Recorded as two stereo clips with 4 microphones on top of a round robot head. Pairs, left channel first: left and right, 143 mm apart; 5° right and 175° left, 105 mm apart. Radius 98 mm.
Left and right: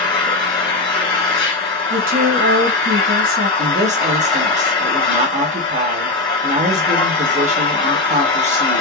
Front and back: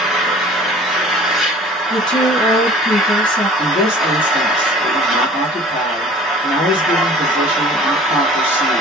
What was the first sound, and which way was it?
An engine running, 85° left.